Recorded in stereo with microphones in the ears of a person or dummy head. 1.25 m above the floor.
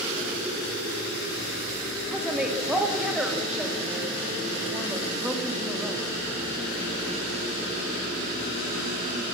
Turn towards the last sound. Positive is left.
turn(degrees=-5)  # may be behind; listen again after turning